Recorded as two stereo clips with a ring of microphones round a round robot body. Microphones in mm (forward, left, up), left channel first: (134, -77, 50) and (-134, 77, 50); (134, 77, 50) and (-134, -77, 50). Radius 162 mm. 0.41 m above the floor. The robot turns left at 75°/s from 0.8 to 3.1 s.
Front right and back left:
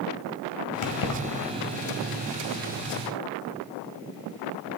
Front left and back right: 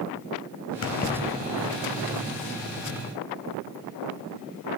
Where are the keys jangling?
15° right, 2.0 m; by 1.2 s 45° right, 2.0 m.